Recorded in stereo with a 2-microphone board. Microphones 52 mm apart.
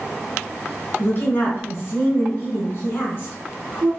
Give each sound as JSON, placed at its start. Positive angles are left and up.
{"t": 1.0, "sound": "a woman speaking", "side_deg": 40, "distance_m": 2.0}